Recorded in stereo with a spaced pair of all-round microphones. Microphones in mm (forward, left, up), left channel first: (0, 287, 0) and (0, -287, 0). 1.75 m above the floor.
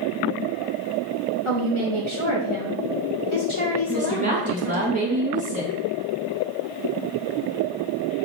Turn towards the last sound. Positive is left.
turn(degrees=-15)  # may be behind; listen again after turning